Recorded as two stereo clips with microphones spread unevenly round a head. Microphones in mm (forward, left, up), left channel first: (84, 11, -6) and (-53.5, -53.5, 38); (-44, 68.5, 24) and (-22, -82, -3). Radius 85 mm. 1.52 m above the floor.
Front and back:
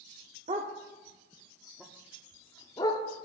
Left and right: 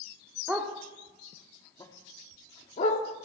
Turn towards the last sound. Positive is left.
turn(degrees=95)